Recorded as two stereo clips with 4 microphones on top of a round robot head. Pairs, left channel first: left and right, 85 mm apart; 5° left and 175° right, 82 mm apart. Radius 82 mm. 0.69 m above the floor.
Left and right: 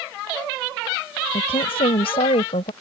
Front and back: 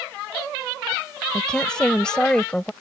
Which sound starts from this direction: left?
A woman speaking, at 1.3 s.